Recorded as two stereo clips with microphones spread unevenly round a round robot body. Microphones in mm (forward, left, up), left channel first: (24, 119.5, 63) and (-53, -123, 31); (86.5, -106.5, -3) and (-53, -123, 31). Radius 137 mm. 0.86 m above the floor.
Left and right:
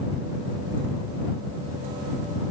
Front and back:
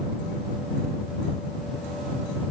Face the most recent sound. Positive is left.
No sound to turn to.